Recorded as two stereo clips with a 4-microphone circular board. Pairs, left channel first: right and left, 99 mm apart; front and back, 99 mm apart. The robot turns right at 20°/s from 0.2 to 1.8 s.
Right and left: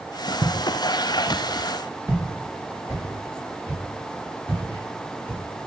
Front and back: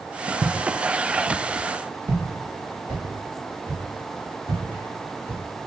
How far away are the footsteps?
About 0.8 m.